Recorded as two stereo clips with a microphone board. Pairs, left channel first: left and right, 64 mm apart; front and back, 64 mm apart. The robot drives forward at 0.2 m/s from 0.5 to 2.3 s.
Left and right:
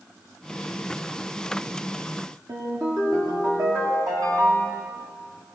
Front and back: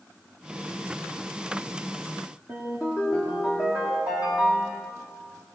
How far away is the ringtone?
About 9.5 m.